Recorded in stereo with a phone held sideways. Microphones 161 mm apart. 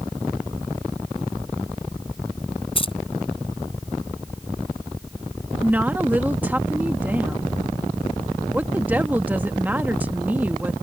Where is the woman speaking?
10° right (ahead or behind).